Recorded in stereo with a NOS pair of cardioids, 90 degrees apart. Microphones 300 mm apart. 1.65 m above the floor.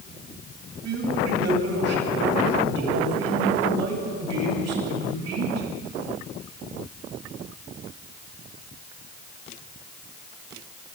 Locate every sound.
0.8 s a man speaking: 65° right, 9.5 m